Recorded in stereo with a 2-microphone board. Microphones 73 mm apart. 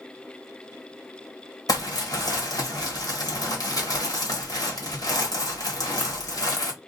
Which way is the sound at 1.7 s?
65° left (ahead or behind).